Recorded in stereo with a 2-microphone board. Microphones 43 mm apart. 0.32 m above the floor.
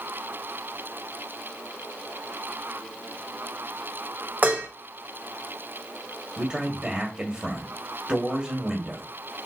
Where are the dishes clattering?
40° right (ahead or behind), 1.0 m.